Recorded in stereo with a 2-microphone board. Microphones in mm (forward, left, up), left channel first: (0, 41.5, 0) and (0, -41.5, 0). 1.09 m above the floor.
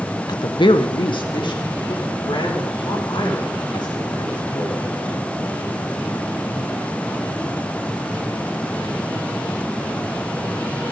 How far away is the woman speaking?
About 0.8 m.